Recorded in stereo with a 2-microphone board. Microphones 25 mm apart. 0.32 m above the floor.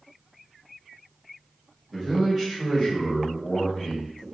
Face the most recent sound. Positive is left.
turn(degrees=35)  # may be behind; listen again after turning